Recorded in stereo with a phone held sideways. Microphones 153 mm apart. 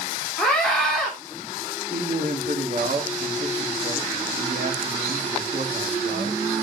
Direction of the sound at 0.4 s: 5° left (ahead or behind).